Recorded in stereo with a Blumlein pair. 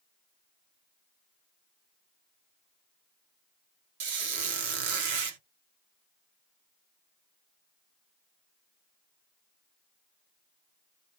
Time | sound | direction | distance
4.0 | a squeak | 50° right | 0.8 m